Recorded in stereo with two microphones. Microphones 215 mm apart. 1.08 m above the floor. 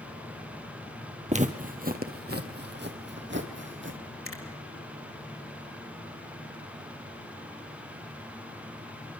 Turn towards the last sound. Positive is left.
turn(degrees=75)  # may be behind; listen again after turning